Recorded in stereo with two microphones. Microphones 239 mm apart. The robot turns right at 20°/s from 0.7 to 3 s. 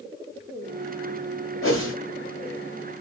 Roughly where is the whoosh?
Left.